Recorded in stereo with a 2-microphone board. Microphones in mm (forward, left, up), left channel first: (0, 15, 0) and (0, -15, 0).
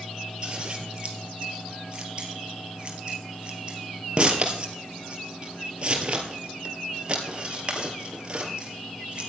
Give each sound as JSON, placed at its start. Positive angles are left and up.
{"t": 0.4, "sound": "scissors", "side_deg": -35, "distance_m": 2.5}